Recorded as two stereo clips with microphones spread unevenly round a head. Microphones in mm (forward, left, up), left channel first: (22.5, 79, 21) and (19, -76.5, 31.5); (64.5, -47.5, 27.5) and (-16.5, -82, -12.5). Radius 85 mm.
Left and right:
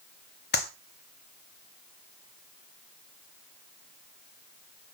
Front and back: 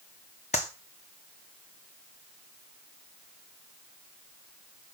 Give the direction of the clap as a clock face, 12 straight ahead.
10 o'clock.